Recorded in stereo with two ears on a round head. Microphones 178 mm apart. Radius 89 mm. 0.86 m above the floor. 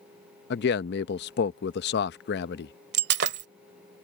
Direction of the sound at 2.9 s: 55° right (ahead or behind).